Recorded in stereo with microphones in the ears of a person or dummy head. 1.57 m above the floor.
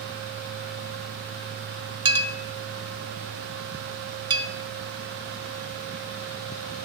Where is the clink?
25° right (ahead or behind), 1.1 m.